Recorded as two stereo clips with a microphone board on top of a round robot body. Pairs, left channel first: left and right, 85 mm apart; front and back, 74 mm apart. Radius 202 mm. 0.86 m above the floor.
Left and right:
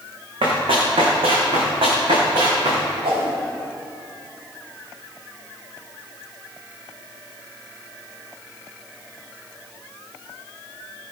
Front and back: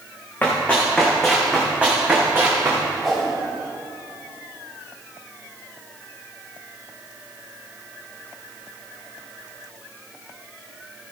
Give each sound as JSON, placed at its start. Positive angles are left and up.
{"t": 0.4, "sound": "running footsteps", "azimuth_deg": -70, "distance_m": 3.0}
{"t": 3.0, "sound": "a whoosh", "azimuth_deg": -90, "distance_m": 3.0}